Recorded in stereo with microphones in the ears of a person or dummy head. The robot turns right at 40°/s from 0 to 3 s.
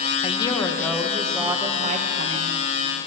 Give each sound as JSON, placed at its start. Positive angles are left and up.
{"t": 0.2, "sound": "a woman speaking", "azimuth_deg": 150, "distance_m": 1.2}